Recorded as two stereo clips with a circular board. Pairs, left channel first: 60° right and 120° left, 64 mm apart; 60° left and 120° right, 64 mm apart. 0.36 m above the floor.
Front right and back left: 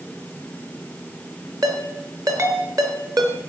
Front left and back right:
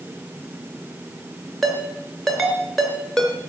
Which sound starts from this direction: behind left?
A ringtone, at 1.6 s.